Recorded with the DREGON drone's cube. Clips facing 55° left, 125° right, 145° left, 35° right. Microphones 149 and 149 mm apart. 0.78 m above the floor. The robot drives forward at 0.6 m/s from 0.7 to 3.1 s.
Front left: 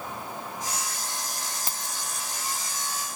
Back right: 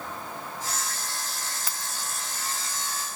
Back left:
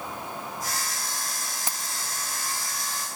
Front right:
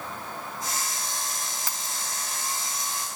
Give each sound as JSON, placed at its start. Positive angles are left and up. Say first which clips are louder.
{"t": 1.7, "sound": "keys jangling", "louder": "front left 1 dB, even", "azimuth_deg": 95}